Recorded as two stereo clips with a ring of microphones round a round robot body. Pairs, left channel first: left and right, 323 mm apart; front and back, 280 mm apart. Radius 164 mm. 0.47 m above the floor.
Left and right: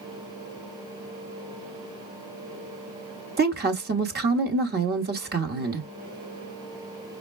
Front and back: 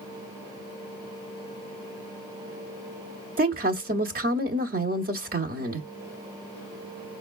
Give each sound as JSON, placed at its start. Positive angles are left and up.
{"t": 3.4, "sound": "a woman speaking", "azimuth_deg": -135, "distance_m": 1.2}